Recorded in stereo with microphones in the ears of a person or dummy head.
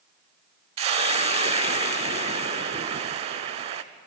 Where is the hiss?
35° right (ahead or behind), 0.6 m.